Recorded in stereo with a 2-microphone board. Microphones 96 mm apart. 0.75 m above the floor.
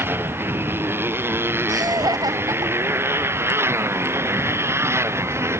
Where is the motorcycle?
25° right (ahead or behind).